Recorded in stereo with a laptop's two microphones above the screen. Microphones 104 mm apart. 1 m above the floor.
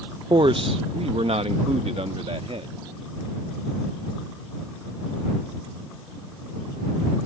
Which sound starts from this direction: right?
A man speaking, at 0.3 s.